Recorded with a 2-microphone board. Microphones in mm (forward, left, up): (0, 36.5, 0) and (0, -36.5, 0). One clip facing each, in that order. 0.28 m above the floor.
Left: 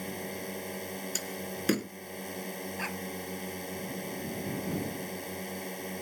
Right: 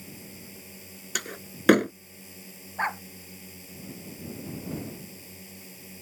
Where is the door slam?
70° right (ahead or behind).